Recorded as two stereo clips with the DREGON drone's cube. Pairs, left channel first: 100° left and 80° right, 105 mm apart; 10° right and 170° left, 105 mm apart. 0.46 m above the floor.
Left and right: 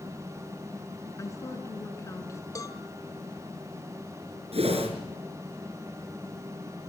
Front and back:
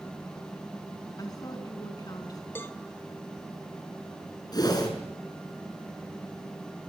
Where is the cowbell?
55° left, 1.8 m.